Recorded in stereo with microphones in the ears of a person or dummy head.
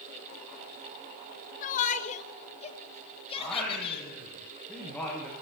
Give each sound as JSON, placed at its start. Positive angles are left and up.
{"t": 1.6, "sound": "a shout", "side_deg": 45, "distance_m": 2.5}
{"t": 3.4, "sound": "singing", "side_deg": 5, "distance_m": 9.0}